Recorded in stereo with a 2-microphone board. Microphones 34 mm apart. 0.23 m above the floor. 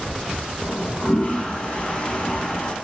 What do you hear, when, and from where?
0.6 s a toilet flushing: 30° left (ahead or behind), 0.5 m